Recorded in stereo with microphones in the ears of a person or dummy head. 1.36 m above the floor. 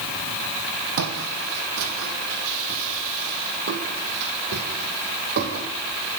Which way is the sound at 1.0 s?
70° right (ahead or behind).